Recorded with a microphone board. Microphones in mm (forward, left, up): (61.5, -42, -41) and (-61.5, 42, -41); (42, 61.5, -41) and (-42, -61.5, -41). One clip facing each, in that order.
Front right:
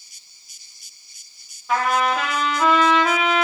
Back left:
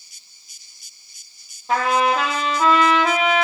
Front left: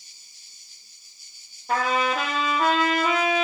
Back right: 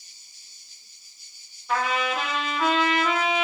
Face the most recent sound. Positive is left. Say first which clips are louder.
# back left 2 dB, front left 2 dB
turn(degrees=95)